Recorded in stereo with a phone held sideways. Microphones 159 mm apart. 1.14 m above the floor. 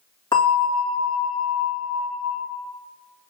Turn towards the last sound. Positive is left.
turn(degrees=30)  # may be behind; listen again after turning